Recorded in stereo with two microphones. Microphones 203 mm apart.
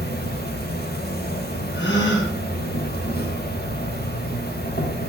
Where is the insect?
50° left (ahead or behind), 1.0 m.